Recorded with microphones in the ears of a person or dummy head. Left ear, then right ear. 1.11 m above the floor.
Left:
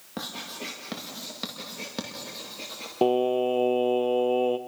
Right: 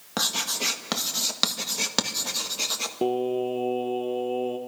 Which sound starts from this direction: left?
Singing, at 3.0 s.